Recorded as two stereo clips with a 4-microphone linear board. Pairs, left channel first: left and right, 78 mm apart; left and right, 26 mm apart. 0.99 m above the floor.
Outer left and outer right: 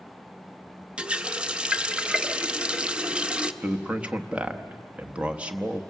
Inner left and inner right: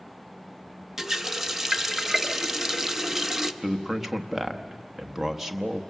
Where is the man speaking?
15° right (ahead or behind), 1.1 m.